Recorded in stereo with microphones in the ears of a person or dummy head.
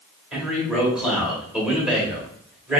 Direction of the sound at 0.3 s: 5° right (ahead or behind).